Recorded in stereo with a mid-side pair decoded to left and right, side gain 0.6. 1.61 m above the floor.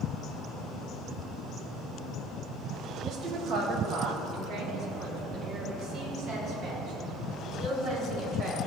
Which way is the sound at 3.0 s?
45° right.